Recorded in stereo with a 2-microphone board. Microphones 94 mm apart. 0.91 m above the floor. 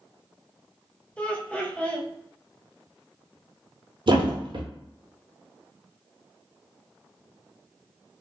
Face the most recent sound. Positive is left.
turn(degrees=-60)  # may be behind; listen again after turning